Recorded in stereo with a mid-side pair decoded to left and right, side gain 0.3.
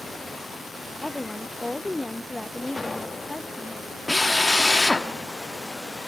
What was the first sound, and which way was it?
A woman speaking, 10° left.